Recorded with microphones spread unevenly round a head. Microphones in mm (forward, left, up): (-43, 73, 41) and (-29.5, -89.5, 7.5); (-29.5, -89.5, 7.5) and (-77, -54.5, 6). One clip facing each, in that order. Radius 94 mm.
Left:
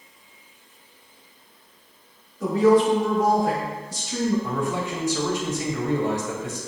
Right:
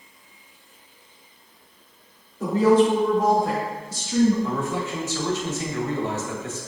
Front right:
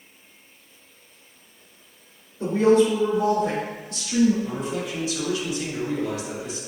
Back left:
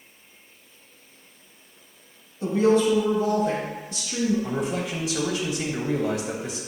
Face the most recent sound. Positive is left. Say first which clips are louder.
# even, back left 1 dB
turn(degrees=170)